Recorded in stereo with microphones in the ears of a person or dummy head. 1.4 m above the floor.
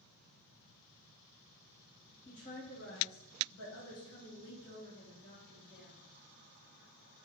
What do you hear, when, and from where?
2.2 s a woman speaking: 40° left (ahead or behind), 1.2 m; by 6.0 s 50° left (ahead or behind), 1.8 m